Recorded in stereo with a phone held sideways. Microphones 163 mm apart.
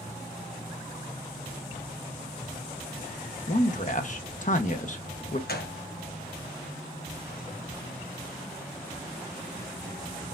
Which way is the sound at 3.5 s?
50° left (ahead or behind).